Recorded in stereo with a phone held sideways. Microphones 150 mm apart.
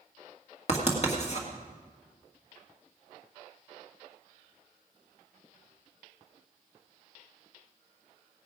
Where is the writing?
45° left (ahead or behind), 2.0 m.